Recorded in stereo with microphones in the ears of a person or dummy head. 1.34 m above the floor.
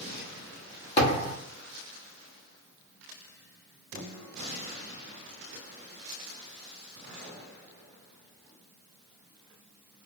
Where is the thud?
35° left (ahead or behind), 1.2 m.